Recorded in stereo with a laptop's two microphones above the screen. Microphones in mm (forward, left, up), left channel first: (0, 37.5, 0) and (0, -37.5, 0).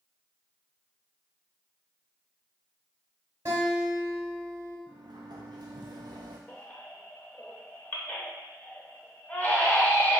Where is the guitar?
50° right (ahead or behind), 1.4 m.